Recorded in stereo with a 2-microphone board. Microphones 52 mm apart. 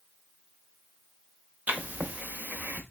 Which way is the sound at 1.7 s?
30° right (ahead or behind).